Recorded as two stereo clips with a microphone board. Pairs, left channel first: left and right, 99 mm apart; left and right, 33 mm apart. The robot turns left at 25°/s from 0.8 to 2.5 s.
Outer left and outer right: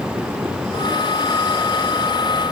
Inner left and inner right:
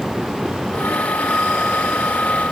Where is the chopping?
No chopping in this recording.